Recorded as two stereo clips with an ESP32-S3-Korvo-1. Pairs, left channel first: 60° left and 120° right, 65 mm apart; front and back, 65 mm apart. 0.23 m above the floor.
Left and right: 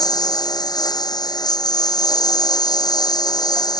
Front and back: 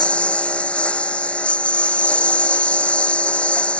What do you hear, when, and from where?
0.0 s a lawn mower: 75° left